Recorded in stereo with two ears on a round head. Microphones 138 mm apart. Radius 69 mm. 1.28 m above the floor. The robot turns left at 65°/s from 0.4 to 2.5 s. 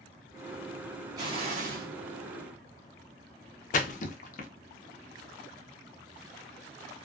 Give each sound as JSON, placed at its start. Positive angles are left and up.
{"t": 1.2, "sound": "an explosion", "azimuth_deg": -25, "distance_m": 0.8}
{"t": 3.7, "sound": "a splash", "side_deg": 55, "distance_m": 0.5}